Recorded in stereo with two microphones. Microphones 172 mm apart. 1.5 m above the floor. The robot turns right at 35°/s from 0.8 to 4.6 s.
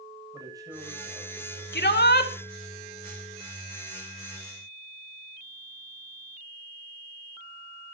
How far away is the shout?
About 2 m.